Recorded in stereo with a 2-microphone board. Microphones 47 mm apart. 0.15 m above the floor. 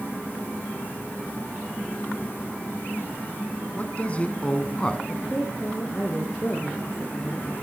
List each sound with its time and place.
3.7 s a man speaking: 30° left (ahead or behind), 1.2 m; by 5.0 s 15° left (ahead or behind), 1.2 m
5.1 s a woman speaking: 30° left (ahead or behind), 2.5 m